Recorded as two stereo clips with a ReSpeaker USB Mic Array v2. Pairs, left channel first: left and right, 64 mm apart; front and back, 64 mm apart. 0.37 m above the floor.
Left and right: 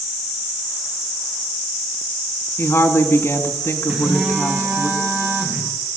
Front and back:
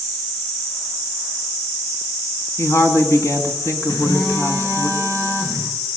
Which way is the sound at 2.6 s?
40° left.